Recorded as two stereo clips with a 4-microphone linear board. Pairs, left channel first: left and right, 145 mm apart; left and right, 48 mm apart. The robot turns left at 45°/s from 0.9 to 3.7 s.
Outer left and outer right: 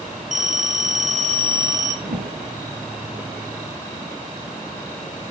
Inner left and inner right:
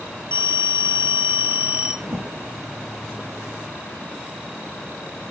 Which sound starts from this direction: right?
A whoosh, at 2.0 s.